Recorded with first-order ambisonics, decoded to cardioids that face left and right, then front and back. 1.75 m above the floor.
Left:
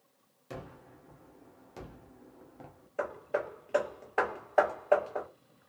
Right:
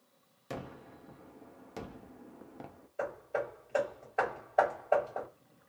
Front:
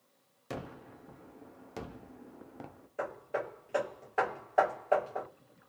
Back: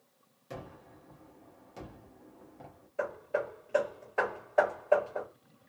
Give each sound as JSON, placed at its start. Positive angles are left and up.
{"t": 0.5, "sound": "a gunshot", "azimuth_deg": -30, "distance_m": 0.5}
{"t": 3.0, "sound": "hammering", "azimuth_deg": 80, "distance_m": 1.3}